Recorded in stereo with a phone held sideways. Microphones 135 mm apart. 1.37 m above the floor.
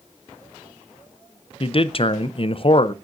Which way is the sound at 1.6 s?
45° left (ahead or behind).